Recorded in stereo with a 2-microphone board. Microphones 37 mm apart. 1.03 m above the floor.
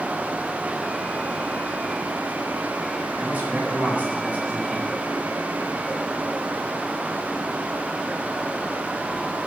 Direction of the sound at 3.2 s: 35° right (ahead or behind).